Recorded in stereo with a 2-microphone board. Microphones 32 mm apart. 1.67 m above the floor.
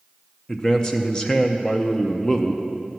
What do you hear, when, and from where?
0.5 s a man speaking: 25° left (ahead or behind), 0.6 m